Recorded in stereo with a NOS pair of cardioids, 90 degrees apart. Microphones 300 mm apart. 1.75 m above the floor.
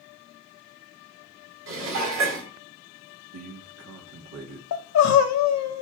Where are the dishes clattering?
70° right, 3 m.